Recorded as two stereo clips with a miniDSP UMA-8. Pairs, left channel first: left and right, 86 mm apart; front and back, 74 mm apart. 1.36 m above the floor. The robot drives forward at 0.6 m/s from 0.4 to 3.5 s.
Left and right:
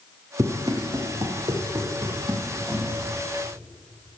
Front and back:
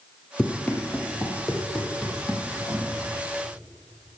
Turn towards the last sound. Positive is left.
turn(degrees=180)